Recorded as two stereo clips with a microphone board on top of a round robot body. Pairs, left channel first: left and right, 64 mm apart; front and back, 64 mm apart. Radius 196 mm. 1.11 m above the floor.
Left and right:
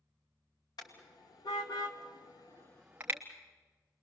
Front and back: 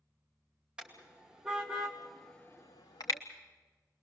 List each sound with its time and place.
0.8 s a car horn: 105° left, 2.5 m; by 3.2 s 35° right, 0.9 m